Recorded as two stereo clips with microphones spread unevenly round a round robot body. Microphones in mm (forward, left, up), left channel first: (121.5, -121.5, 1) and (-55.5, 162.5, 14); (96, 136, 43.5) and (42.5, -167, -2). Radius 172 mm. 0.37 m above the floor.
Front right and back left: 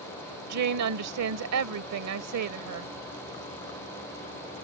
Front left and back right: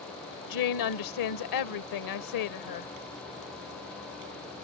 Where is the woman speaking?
90° left.